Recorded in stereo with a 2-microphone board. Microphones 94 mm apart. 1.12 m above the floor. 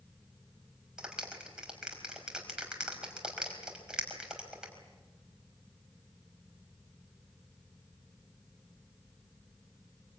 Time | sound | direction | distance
1.0 | a clap | 10° right (ahead or behind) | 4.5 m